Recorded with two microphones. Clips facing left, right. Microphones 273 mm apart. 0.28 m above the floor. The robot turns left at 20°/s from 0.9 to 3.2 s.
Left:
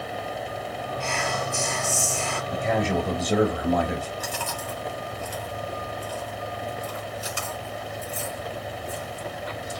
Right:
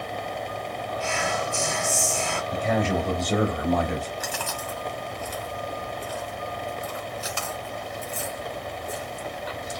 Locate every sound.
1.0 s whispering: 10° right (ahead or behind), 1.5 m; by 2.4 s 20° right (ahead or behind), 1.5 m
2.5 s a man speaking: centre (ahead or behind), 1.0 m; by 4.1 s 5° left (ahead or behind), 1.0 m
4.2 s chewing: 35° left (ahead or behind), 1.6 m